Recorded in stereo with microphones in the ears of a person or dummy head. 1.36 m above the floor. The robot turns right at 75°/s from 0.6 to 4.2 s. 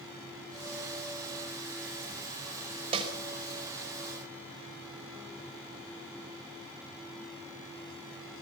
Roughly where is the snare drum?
Right.